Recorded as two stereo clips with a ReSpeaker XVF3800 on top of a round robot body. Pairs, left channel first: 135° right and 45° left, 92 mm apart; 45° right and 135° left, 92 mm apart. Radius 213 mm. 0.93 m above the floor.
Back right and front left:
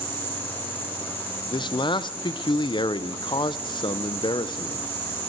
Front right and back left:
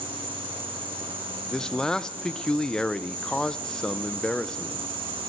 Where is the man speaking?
125° right, 1.0 m.